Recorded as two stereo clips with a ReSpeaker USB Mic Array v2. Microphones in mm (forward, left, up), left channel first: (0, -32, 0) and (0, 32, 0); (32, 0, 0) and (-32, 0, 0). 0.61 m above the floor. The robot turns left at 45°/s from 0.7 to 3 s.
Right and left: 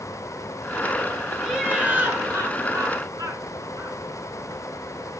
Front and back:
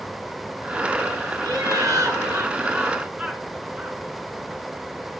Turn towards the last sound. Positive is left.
turn(degrees=105)